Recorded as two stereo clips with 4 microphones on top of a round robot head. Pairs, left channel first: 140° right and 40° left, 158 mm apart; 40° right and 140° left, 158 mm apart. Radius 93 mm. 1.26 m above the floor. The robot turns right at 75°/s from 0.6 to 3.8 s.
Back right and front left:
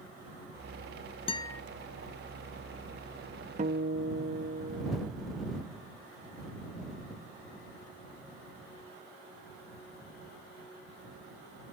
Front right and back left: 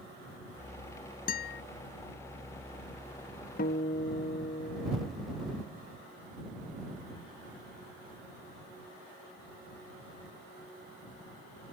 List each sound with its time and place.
1.3 s a guitar: 80° right; by 1.6 s 55° right
3.6 s a guitar: 10° right; by 5.1 s 10° left